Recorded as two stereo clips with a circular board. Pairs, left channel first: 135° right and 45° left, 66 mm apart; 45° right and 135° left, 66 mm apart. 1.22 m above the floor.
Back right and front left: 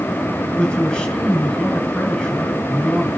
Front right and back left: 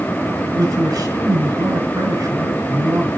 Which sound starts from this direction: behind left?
A man speaking, at 0.5 s.